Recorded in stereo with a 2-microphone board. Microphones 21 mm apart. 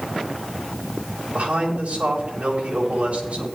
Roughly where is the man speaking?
Right.